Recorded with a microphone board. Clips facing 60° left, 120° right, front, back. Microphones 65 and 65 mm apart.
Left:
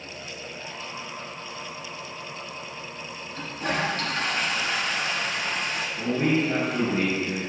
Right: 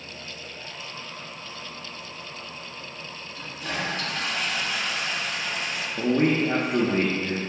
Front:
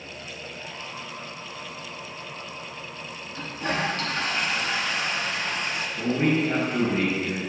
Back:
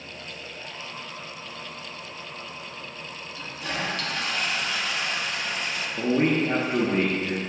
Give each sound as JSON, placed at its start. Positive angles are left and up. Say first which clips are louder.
{"t": 3.3, "sound": "a toilet flushing", "louder": "left 4 dB, front 4 dB", "azimuth_deg": 45, "distance_m": 1.1}
{"t": 6.0, "sound": "a man speaking", "louder": "right 2 dB, back 1 dB", "azimuth_deg": -140, "distance_m": 1.5}